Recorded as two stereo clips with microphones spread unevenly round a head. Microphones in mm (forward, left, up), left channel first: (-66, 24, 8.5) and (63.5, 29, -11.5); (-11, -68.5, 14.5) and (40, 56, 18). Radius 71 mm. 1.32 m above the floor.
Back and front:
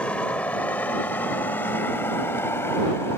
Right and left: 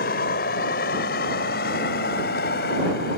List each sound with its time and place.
0.0 s a vehicle: 100° right; by 3.2 s 105° right